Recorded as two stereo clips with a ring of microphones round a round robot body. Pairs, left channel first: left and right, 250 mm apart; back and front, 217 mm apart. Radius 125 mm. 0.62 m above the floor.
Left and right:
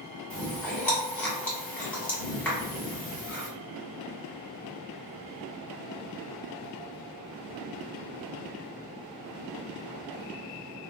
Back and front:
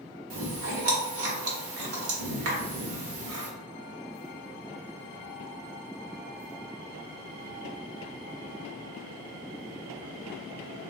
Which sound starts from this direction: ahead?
Chewing, at 0.3 s.